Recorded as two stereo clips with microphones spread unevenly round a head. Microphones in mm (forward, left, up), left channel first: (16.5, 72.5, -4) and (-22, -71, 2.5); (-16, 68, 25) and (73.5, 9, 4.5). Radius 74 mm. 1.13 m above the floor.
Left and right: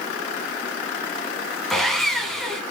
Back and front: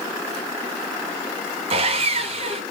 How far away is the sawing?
About 1.4 m.